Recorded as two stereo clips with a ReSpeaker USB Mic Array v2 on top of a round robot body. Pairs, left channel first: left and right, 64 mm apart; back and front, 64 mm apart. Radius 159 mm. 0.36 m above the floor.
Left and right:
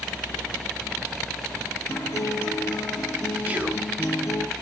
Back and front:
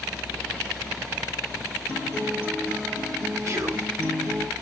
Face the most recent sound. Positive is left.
turn(degrees=-30)